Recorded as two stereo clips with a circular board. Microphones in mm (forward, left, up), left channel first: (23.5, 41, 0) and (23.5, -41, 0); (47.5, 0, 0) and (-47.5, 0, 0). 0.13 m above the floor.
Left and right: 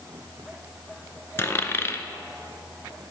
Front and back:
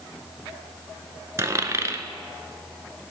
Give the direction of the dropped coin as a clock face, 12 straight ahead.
8 o'clock.